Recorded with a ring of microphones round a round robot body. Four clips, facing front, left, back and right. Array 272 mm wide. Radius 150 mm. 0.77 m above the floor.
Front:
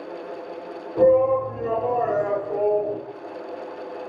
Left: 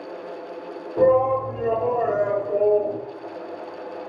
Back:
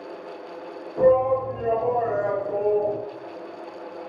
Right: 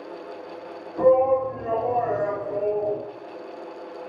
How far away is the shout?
About 4 m.